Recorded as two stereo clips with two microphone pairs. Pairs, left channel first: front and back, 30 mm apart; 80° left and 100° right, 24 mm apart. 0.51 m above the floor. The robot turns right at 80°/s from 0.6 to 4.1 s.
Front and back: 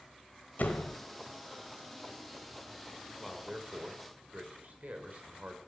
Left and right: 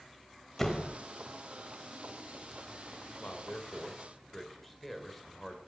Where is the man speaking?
90° left, 2 m; by 5.6 s 160° left, 2 m.